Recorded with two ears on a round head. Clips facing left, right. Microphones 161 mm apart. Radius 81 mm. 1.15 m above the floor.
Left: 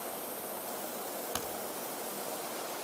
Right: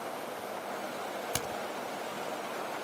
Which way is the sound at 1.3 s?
25° right (ahead or behind).